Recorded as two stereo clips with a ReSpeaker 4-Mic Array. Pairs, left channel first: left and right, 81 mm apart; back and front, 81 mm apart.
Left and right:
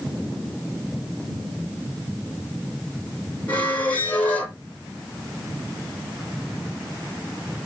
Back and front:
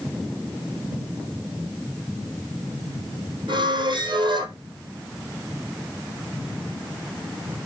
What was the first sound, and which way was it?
A squeak, 20° left.